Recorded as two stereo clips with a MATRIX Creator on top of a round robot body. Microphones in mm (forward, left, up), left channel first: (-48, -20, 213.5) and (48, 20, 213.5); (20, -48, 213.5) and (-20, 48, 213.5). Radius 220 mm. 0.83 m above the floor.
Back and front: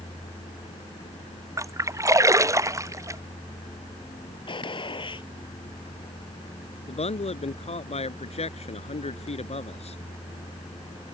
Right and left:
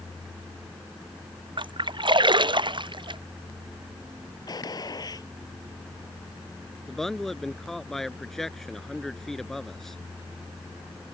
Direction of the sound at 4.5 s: 120° right.